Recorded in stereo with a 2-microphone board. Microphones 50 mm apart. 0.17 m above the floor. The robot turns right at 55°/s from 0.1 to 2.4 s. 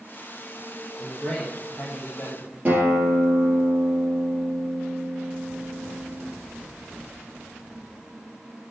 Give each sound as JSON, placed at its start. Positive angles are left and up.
{"t": 1.0, "sound": "a man speaking", "azimuth_deg": -5, "distance_m": 3.5}
{"t": 2.6, "sound": "a guitar", "side_deg": -35, "distance_m": 3.5}